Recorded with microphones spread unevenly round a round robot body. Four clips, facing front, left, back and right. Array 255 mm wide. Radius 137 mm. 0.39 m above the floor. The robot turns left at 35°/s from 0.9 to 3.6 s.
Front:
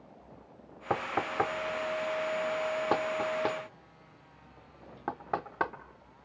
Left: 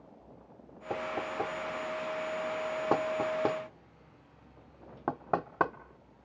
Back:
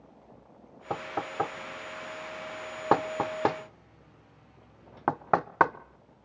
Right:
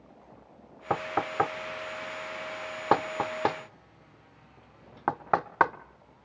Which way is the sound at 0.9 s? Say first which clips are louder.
Right 5 dB, front 2 dB; 65° right.